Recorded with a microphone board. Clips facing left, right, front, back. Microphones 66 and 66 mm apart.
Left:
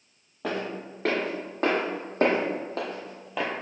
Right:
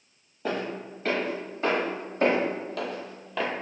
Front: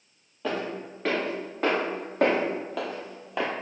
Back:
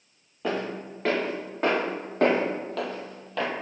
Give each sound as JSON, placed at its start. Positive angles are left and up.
{"t": 0.4, "sound": "footsteps", "azimuth_deg": 100, "distance_m": 1.7}